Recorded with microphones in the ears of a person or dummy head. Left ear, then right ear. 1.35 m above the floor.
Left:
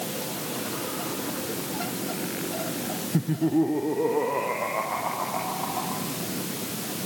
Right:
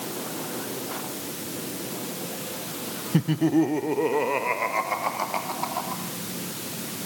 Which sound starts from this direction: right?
Laughter, at 3.1 s.